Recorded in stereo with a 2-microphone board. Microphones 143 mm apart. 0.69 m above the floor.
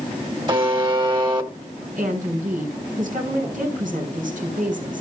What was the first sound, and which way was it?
A buzzer, 35° right (ahead or behind).